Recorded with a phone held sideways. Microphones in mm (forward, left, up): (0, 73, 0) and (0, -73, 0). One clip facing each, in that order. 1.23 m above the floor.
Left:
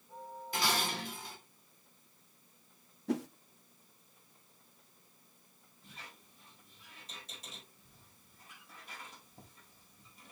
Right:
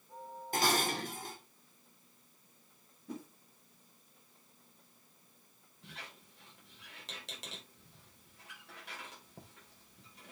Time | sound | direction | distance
0.5 | dishes clattering | 45° right (ahead or behind) | 2.5 m
3.1 | a whoosh | 85° left | 0.6 m
5.8 | a squeak | 85° right | 4.5 m